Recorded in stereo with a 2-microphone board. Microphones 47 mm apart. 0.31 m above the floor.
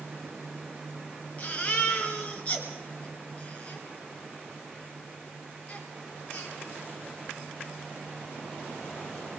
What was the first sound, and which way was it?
A baby crying, 30° left (ahead or behind).